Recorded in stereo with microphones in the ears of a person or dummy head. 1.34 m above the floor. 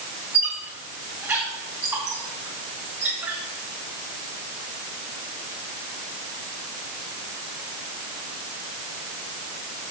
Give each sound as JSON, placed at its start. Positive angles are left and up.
{"t": 0.3, "sound": "a squeak", "side_deg": -5, "distance_m": 2.5}